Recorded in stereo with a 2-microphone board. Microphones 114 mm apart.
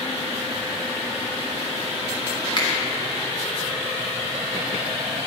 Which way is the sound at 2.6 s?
40° left (ahead or behind).